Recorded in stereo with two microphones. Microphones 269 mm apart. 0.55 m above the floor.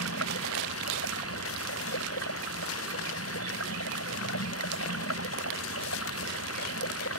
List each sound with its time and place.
0.0 s running water: 55° left (ahead or behind)